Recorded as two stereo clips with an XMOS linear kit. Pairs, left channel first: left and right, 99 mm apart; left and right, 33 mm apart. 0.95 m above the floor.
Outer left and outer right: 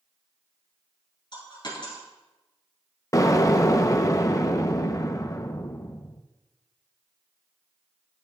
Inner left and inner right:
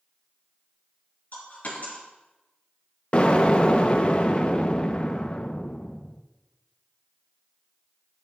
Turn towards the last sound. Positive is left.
turn(degrees=35)  # may be behind; listen again after turning